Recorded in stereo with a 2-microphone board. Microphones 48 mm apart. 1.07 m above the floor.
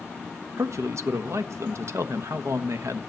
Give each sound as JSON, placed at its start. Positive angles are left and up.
{"t": 0.6, "sound": "a man speaking", "side_deg": -70, "distance_m": 1.3}